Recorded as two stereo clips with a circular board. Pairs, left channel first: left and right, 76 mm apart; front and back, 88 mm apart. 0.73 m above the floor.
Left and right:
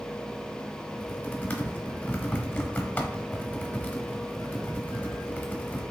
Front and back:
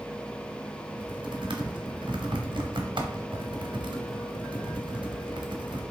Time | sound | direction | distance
0.9 | typing on a keyboard | 155° left | 0.8 m